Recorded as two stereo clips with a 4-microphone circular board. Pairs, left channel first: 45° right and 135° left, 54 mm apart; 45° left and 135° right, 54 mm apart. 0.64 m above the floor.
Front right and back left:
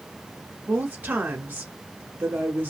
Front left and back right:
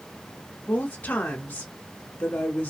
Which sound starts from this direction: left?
A woman speaking, at 0.7 s.